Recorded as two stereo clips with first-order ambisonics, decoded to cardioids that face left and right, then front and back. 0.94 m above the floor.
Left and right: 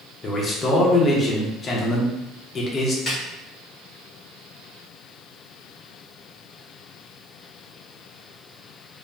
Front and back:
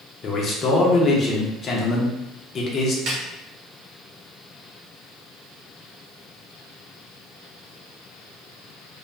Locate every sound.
0.2 s a man speaking: 35° left, 0.5 m
3.1 s a snare drum: 155° left, 0.9 m